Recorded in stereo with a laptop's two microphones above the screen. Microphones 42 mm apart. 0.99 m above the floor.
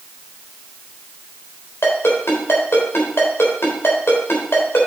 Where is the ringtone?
75° left (ahead or behind), 3 m.